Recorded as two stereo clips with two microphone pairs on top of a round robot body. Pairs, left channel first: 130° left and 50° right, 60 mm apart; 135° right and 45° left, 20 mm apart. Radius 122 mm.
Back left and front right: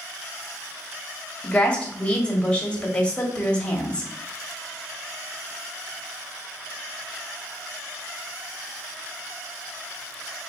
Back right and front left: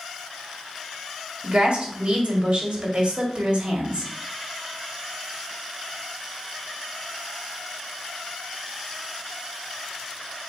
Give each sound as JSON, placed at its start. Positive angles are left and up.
{"t": 1.4, "sound": "a woman speaking", "azimuth_deg": 60, "distance_m": 1.7}